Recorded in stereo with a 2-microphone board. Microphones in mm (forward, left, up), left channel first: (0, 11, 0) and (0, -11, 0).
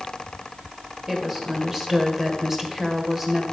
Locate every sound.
1.1 s a woman speaking: 20° right (ahead or behind), 2 m